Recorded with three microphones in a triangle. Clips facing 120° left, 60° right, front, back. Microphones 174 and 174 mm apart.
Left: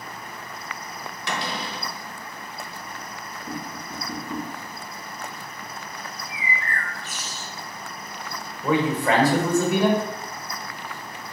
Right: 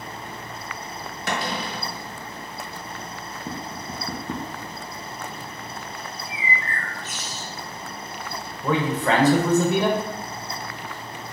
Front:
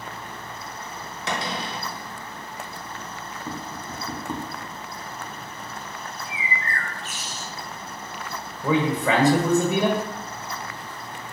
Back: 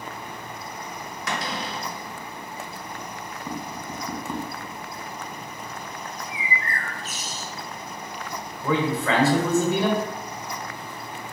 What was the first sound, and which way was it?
A cupboard door, 50° right.